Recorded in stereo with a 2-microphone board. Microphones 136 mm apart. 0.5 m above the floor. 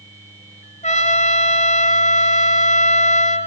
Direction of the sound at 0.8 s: 60° left (ahead or behind).